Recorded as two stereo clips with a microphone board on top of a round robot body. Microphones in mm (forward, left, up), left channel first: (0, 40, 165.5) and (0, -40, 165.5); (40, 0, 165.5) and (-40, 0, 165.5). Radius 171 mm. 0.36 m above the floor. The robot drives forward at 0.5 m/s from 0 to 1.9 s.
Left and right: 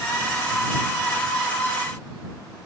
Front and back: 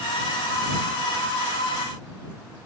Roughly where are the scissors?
No scissors in this recording.